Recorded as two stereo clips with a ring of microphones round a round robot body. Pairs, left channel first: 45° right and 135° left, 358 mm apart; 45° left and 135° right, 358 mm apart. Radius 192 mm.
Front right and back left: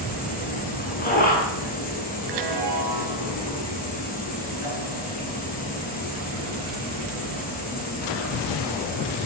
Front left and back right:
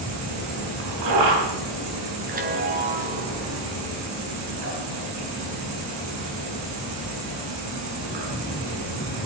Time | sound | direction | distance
0.0 | an insect | 110° right | 7.5 m
2.3 | a chime | 155° left | 3.5 m